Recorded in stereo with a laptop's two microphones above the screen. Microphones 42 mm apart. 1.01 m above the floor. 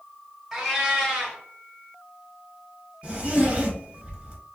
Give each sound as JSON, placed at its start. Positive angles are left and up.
{"t": 0.5, "sound": "a cat meowing", "side_deg": -10, "distance_m": 1.4}
{"t": 3.0, "sound": "a zipper", "side_deg": -30, "distance_m": 1.0}